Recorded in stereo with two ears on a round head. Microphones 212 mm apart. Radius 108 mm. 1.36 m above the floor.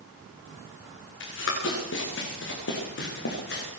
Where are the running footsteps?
60° left (ahead or behind), 7.5 m; by 3.7 s 50° left (ahead or behind), 6.5 m.